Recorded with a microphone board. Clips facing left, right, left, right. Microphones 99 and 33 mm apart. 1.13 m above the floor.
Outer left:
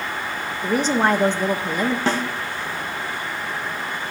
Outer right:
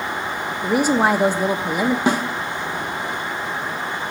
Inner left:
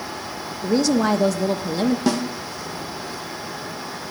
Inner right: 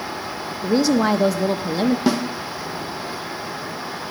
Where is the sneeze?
I don't hear a sneeze.